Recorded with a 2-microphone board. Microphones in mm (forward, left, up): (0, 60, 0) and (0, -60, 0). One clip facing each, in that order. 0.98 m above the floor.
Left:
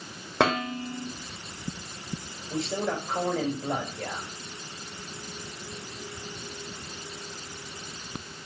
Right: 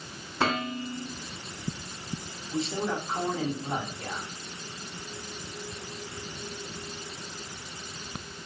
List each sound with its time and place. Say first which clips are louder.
0.4 s dishes clattering: left 3 dB; 80° left, 3 m
2.5 s a man speaking: left 1 dB; 65° left (ahead or behind), 4 m